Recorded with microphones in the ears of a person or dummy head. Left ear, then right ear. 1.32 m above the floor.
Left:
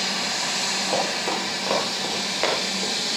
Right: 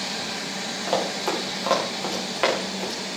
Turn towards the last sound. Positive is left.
turn(degrees=-15)  # may be behind; listen again after turning